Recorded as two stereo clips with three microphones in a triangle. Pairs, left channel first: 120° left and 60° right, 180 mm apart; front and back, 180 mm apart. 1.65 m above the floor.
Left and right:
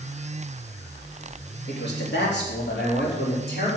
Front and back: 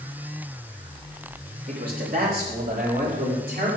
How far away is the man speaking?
About 3 m.